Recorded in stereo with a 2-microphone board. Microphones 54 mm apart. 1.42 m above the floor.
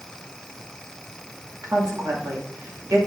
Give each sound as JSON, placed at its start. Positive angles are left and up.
{"t": 1.6, "sound": "a woman speaking", "side_deg": -85, "distance_m": 1.8}